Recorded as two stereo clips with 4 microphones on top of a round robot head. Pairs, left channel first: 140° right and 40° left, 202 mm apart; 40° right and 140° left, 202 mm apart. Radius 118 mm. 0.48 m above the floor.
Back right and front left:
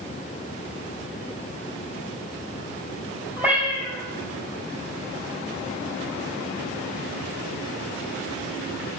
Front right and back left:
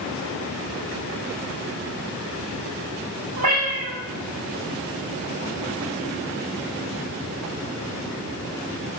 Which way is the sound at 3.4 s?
125° left.